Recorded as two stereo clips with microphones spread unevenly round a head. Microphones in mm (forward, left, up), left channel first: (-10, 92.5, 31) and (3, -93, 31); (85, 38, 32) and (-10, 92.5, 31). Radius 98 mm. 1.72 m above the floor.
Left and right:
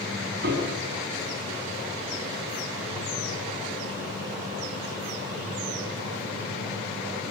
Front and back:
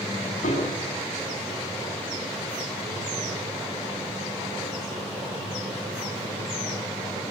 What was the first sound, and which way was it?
A piano, 45° right.